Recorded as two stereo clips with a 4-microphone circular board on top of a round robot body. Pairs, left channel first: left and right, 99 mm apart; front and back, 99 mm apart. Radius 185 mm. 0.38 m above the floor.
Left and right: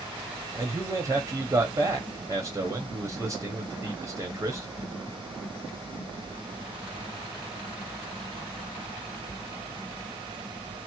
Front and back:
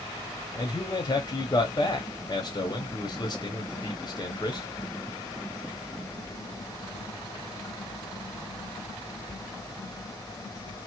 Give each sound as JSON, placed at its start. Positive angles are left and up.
{"t": 0.6, "sound": "a man speaking", "azimuth_deg": -40, "distance_m": 1.1}